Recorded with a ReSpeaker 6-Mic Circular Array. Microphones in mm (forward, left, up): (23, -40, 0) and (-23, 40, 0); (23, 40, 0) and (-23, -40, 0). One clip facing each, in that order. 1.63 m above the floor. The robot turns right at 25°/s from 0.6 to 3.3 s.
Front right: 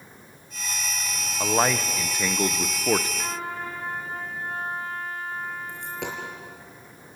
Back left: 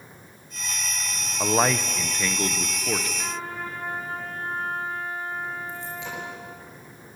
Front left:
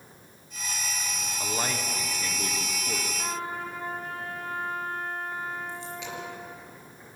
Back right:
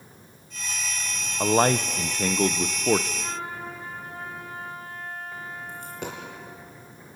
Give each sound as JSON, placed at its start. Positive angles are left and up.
{"t": 1.4, "sound": "a man speaking", "azimuth_deg": -155, "distance_m": 0.7}
{"t": 3.2, "sound": "a trumpet", "azimuth_deg": 25, "distance_m": 8.5}
{"t": 5.7, "sound": "a dropped coin", "azimuth_deg": -80, "distance_m": 4.5}